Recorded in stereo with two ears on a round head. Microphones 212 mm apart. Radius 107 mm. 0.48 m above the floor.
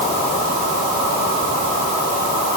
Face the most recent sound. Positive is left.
No sound to turn to.